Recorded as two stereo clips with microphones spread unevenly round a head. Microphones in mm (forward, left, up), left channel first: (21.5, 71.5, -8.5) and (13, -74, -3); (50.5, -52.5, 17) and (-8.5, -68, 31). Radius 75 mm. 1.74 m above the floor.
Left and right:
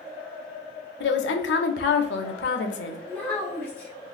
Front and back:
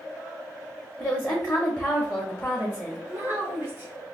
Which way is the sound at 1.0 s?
90° left.